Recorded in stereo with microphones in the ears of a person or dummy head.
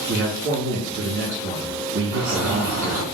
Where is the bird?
20° right (ahead or behind), 2.0 m.